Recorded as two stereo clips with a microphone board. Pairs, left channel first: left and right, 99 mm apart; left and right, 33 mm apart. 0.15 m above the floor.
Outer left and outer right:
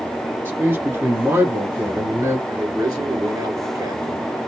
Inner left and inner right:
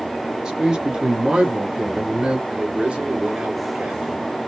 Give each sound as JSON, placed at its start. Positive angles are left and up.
{"t": 0.5, "sound": "a man speaking", "side_deg": -25, "distance_m": 2.5}
{"t": 2.5, "sound": "a man speaking", "side_deg": -40, "distance_m": 2.0}